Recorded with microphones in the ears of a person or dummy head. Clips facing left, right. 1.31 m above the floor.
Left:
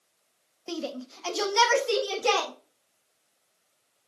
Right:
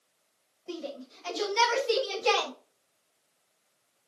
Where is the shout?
80° left, 1.5 m; by 2.5 s 50° left (ahead or behind), 3 m.